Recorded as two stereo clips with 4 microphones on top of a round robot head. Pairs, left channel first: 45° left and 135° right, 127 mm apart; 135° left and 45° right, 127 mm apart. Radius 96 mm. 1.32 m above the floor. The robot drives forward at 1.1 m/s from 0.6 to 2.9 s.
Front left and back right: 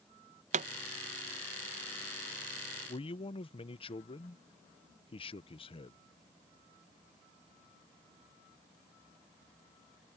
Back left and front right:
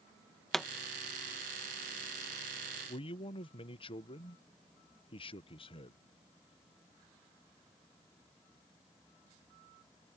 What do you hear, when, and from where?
0.5 s a pop: 140° right
2.9 s a man speaking: 85° left; by 6.0 s 90° left